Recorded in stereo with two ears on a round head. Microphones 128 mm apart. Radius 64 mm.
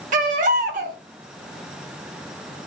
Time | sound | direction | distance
0.1 | a baby crying | 60° right (ahead or behind) | 1.1 m